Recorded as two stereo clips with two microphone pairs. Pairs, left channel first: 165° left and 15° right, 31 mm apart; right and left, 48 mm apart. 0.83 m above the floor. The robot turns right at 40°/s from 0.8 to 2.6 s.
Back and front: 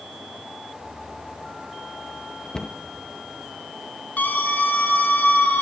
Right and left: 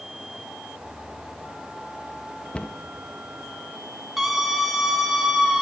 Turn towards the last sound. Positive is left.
turn(degrees=170)